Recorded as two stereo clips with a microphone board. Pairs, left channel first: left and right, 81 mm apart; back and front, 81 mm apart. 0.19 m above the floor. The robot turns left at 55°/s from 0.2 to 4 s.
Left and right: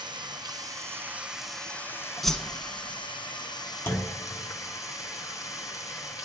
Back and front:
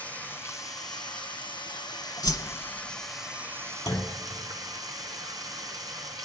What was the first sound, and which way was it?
Running water, 110° right.